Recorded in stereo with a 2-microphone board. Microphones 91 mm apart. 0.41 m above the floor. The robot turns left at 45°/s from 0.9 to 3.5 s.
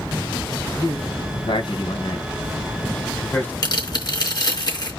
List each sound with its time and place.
0.7 s a man speaking: 40° left (ahead or behind), 3 m; by 3.5 s 20° left (ahead or behind), 3 m
3.6 s tearing paper: 50° left (ahead or behind), 4 m